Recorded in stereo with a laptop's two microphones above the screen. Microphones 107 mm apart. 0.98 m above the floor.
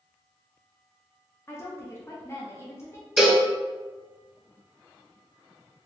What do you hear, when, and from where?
1.5 s a woman speaking: 25° left (ahead or behind), 0.6 m
3.2 s a cowbell: 5° right (ahead or behind), 0.7 m